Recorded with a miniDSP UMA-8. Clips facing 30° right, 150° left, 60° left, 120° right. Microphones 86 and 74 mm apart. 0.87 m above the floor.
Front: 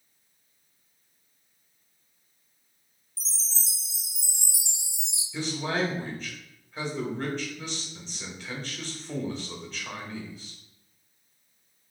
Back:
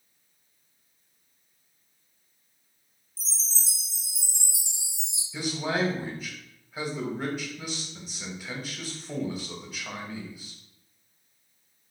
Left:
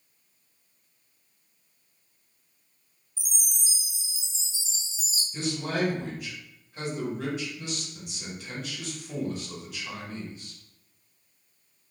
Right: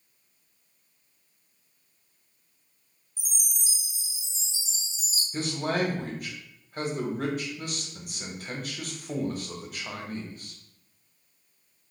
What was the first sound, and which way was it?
A chime, 5° right.